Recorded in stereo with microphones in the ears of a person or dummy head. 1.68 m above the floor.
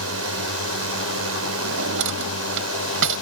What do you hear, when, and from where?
0.0 s a drone: 80° right
1.6 s a drawer: 65° right (ahead or behind)